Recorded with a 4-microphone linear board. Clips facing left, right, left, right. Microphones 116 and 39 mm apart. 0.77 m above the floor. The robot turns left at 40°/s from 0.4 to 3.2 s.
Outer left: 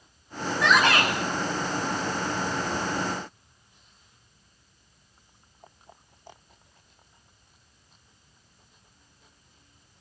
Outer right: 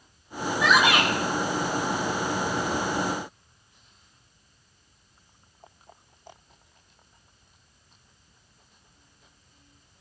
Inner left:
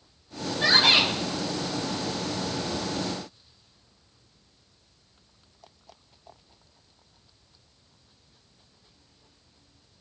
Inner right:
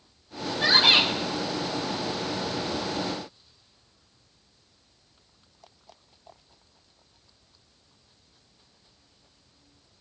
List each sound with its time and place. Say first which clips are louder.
0.6 s a shout: even, even; centre (ahead or behind), 8.5 m; by 1.1 s 20° right (ahead or behind), 8.5 m